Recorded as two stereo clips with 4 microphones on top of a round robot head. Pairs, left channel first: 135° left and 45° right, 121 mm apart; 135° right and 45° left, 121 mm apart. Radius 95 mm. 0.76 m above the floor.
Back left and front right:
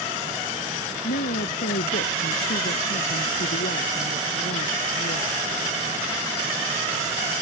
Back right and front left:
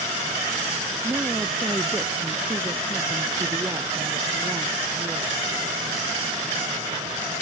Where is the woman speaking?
125° left; by 5.6 s 120° left.